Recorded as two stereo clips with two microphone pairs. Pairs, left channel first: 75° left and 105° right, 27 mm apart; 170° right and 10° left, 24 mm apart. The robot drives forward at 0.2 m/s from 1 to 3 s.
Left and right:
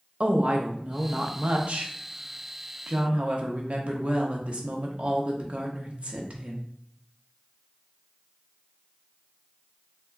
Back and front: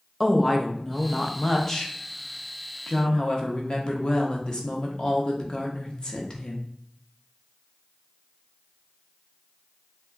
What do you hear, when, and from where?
0.2 s a woman speaking: 90° right, 0.7 m; by 6.7 s 125° right, 0.8 m